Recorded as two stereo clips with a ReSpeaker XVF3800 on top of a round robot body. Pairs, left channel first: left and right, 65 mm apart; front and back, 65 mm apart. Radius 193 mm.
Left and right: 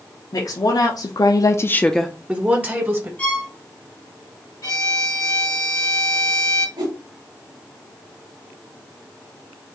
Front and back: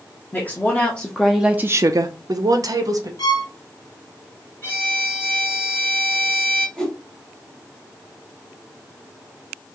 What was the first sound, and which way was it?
A woman speaking, 65° left.